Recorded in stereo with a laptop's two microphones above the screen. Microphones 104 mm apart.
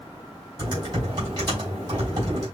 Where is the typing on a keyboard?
40° right (ahead or behind), 4 m.